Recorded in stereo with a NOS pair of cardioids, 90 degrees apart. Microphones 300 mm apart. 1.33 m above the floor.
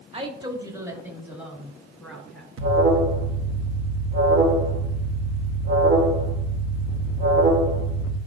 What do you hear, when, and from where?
0.1 s a woman speaking: 20° right, 2 m; by 2.5 s straight ahead, 5 m
2.6 s an alarm: 45° right, 1.6 m